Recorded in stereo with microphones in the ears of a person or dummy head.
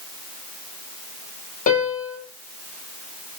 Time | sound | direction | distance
1.7 | a piano | 45° left (ahead or behind) | 1.2 m